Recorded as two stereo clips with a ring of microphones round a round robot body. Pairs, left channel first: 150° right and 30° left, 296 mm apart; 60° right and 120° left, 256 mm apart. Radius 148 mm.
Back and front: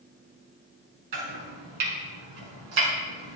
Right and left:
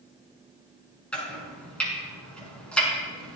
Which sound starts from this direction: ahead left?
Chopping, at 1.1 s.